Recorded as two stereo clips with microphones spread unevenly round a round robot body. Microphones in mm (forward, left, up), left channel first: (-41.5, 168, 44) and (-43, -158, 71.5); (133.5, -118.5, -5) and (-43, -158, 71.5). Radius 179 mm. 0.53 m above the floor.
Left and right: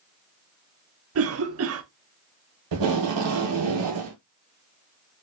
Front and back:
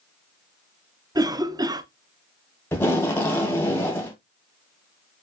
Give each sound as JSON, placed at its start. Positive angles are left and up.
{"t": 1.1, "sound": "a cough", "azimuth_deg": -75, "distance_m": 0.8}
{"t": 2.7, "sound": "tape being pulled", "azimuth_deg": -60, "distance_m": 1.8}